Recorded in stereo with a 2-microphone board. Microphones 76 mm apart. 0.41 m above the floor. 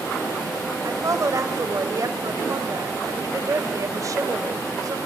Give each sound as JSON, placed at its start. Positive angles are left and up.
{"t": 0.8, "sound": "a woman speaking", "side_deg": -45, "distance_m": 1.6}